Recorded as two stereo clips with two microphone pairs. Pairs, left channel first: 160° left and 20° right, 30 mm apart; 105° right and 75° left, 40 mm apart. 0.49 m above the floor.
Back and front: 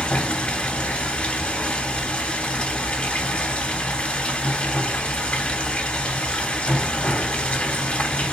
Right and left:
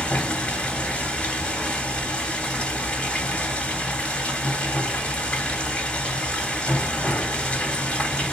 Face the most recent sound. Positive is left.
turn(degrees=-165)